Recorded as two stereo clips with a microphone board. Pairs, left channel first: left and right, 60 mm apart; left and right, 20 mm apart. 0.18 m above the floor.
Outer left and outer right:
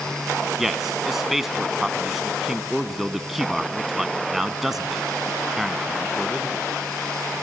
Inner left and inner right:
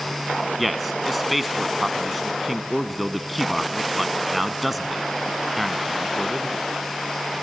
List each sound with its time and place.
0.6 s a man speaking: 5° right (ahead or behind), 1.3 m